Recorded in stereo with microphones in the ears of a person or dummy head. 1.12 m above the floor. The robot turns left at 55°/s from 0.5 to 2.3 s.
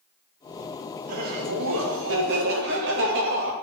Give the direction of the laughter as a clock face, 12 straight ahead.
2 o'clock.